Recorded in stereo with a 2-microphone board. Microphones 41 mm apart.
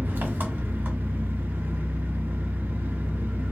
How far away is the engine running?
About 1.5 m.